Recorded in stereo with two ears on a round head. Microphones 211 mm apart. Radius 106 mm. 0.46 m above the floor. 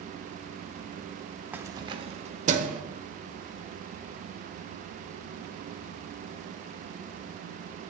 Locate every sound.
1.5 s keys jangling: 10° right (ahead or behind), 0.5 m; by 2.8 s 35° right (ahead or behind), 1.0 m